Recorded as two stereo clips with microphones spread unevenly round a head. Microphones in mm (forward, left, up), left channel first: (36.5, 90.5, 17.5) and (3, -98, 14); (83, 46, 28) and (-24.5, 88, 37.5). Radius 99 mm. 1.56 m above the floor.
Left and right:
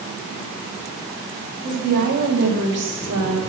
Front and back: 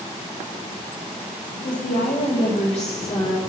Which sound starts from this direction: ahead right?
A woman speaking, at 1.6 s.